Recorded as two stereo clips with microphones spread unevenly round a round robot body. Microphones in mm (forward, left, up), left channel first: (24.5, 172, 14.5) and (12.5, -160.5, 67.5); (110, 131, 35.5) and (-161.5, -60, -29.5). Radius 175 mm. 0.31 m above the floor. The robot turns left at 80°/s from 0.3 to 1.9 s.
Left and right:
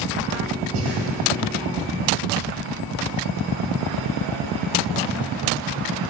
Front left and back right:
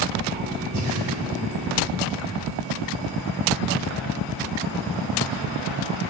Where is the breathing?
140° right, 2 m; by 1.0 s 165° right, 2 m.